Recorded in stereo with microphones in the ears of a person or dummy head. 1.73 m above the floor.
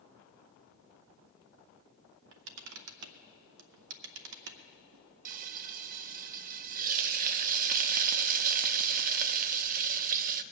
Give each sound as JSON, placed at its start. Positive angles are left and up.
{"t": 2.3, "sound": "a camera shutter", "side_deg": -75, "distance_m": 0.8}
{"t": 5.2, "sound": "frying", "side_deg": -45, "distance_m": 0.6}